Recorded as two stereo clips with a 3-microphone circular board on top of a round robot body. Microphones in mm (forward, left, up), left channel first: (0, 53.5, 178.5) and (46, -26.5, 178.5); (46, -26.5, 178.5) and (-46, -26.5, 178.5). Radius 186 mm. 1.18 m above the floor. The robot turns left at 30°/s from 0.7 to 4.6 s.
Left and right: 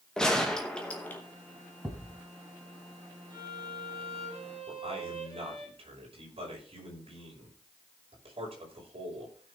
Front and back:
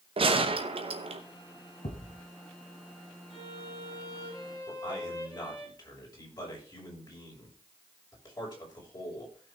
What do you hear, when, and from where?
0.2 s a gunshot: 155° right, 1.0 m; by 1.2 s 170° right, 1.0 m
1.8 s a thud: 30° left, 1.8 m; by 2.2 s 15° left, 1.8 m
3.3 s a violin: 10° right, 5.5 m; by 5.7 s 50° right, 5.5 m
4.7 s a man speaking: 45° right, 5.5 m